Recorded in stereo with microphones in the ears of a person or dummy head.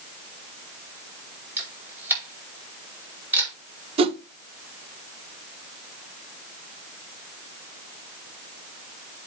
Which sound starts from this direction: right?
A whoosh, at 4.0 s.